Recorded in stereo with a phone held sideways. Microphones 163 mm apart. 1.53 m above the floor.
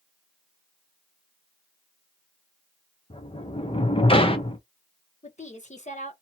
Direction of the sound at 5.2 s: 45° left (ahead or behind).